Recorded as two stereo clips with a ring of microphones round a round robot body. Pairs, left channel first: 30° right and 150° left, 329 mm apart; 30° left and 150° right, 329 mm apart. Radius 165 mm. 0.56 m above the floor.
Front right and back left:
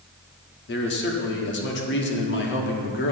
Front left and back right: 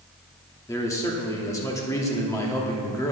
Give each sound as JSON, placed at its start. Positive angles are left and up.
{"t": 0.7, "sound": "a man speaking", "azimuth_deg": -45, "distance_m": 1.2}